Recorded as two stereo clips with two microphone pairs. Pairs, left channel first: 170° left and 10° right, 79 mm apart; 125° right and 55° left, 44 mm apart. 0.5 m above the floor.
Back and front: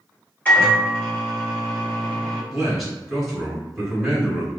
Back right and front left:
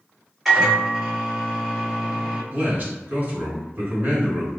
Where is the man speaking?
80° left, 1.3 m.